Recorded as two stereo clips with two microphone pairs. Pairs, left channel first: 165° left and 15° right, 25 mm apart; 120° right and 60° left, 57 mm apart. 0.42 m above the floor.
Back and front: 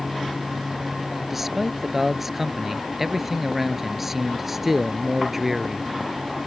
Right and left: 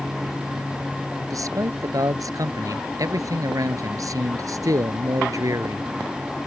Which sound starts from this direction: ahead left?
A man speaking, at 1.2 s.